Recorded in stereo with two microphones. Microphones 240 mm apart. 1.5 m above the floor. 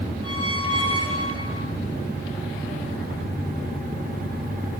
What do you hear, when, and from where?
0.2 s a squeak: 75° left (ahead or behind), 7.5 m